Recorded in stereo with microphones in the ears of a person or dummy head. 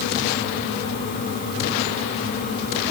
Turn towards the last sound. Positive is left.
No sound to turn to.